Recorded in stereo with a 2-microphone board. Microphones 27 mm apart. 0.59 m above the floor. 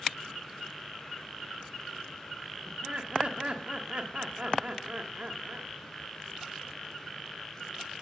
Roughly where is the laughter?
Right.